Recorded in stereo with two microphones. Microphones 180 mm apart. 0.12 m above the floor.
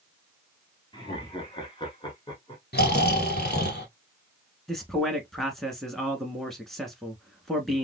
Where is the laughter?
25° left (ahead or behind), 1.9 m.